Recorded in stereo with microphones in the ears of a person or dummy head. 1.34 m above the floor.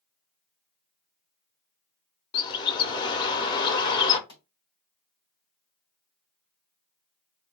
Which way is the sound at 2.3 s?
20° left (ahead or behind).